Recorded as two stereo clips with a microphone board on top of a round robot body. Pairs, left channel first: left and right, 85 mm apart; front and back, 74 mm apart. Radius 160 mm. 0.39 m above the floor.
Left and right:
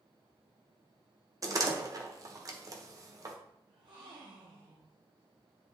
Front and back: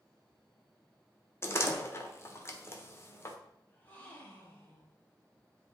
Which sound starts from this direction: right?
A gasp, at 3.7 s.